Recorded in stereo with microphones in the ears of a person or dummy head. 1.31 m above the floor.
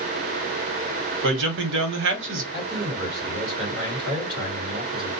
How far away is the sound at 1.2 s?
About 1.0 m.